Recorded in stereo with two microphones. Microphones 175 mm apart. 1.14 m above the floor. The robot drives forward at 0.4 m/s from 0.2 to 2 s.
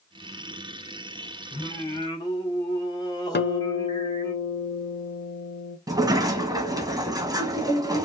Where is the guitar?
80° left, 0.5 m.